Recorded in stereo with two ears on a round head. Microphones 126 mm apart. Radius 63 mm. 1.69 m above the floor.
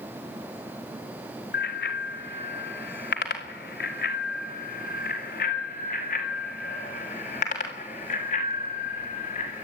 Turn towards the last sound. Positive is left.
turn(degrees=45)  # may be behind; listen again after turning